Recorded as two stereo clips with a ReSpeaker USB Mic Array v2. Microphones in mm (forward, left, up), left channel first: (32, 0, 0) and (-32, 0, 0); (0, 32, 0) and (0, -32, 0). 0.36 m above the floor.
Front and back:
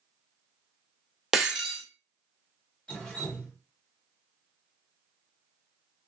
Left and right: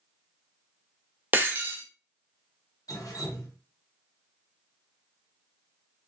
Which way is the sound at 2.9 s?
75° left.